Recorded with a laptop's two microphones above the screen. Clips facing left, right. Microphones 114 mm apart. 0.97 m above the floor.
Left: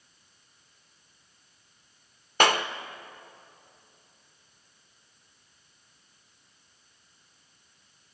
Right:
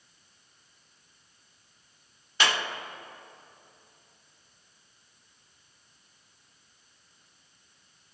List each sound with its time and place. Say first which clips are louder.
2.4 s a clap: left 6 dB; 50° left (ahead or behind), 0.9 m